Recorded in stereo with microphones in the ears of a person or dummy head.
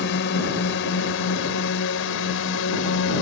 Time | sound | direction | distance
0.0 | a drone | 65° left (ahead or behind) | ?